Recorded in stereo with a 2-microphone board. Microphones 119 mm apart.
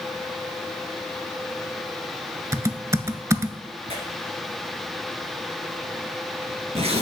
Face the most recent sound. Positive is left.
turn(degrees=-65)  # may be behind; listen again after turning